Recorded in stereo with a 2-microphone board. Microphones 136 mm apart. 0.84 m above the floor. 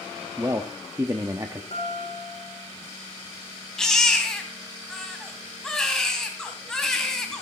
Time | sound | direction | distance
0.4 | a man speaking | 25° right (ahead or behind) | 1.0 m
1.7 | a guitar | 60° left (ahead or behind) | 3.5 m
3.8 | a baby crying | 5° left (ahead or behind) | 2.5 m